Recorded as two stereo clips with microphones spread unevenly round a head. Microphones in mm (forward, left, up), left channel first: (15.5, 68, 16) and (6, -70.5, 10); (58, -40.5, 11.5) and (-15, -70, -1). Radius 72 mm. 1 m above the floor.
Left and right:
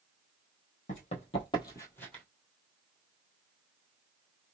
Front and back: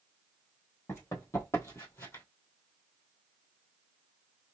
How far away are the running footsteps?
About 1.5 m.